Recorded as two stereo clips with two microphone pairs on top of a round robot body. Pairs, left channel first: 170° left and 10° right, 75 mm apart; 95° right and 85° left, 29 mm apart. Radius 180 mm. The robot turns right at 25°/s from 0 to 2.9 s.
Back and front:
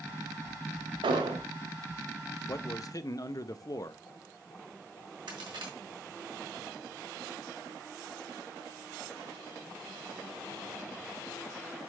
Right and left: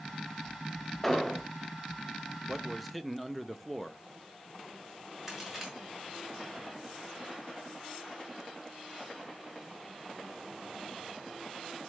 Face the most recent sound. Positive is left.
turn(degrees=0)